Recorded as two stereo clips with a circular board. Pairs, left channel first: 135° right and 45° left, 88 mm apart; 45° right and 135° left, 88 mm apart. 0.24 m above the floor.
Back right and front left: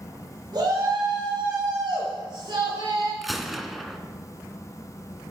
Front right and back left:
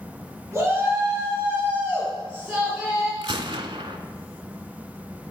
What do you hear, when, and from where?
0.5 s a shout: 75° left, 3.5 m; by 3.1 s 55° left, 3 m
3.2 s a gunshot: 135° left, 0.7 m